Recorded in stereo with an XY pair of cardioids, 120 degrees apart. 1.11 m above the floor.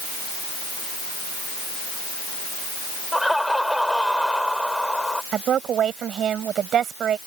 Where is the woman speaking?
55° right.